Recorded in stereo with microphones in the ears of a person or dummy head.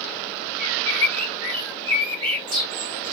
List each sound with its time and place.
0.6 s a bird: 25° right (ahead or behind), 0.9 m